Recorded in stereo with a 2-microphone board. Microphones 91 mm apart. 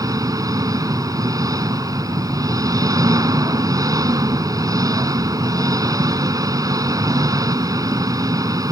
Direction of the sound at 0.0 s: 35° right (ahead or behind).